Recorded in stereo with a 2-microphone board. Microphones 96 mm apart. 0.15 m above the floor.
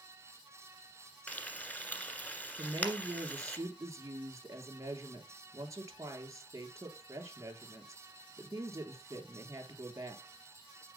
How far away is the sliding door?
I don't hear a sliding door.